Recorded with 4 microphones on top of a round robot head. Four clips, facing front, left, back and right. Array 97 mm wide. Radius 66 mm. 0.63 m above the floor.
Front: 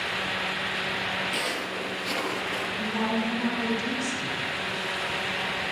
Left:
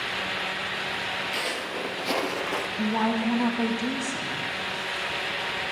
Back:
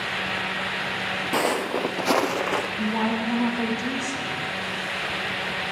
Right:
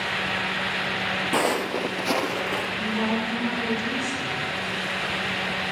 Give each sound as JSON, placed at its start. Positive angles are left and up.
{"t": 1.3, "sound": "footsteps", "azimuth_deg": -130, "distance_m": 1.2}
{"t": 2.8, "sound": "a woman speaking", "azimuth_deg": 130, "distance_m": 5.5}